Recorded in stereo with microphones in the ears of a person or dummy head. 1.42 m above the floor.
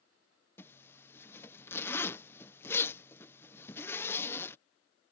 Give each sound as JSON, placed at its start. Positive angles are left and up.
{"t": 0.6, "sound": "a zipper", "side_deg": 10}